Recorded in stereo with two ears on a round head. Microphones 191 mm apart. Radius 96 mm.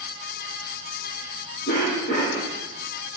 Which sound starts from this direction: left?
A cough, at 1.7 s.